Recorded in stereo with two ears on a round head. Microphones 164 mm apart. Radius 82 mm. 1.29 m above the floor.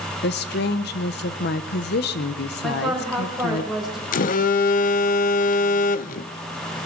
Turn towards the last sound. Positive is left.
turn(degrees=50)  # may be behind; listen again after turning